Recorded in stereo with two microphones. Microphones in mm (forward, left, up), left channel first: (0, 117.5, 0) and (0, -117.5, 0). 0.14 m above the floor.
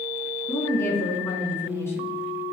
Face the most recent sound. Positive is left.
turn(degrees=10)  # may be behind; listen again after turning